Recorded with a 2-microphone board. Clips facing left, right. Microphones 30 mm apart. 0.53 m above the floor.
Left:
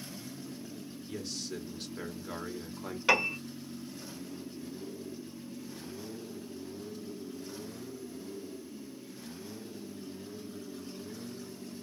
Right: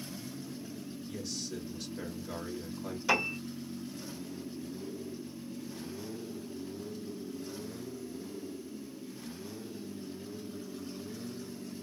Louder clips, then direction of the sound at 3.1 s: Left 3 dB; 50° left (ahead or behind).